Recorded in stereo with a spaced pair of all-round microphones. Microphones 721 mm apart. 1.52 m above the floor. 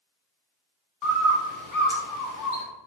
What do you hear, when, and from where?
1.0 s a bird: 25° left (ahead or behind), 0.8 m